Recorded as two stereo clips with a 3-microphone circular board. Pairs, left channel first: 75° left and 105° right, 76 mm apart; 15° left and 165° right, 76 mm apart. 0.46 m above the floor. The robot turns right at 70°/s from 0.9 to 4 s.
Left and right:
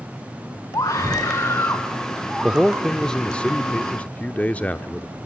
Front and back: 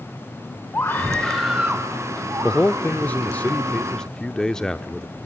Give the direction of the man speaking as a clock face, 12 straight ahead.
1 o'clock.